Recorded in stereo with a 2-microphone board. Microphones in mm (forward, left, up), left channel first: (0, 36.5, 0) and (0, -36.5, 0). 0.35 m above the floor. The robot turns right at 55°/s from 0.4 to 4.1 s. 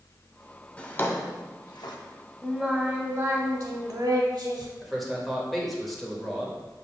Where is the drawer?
15° left (ahead or behind), 0.6 m; by 2.0 s 70° left (ahead or behind), 0.6 m.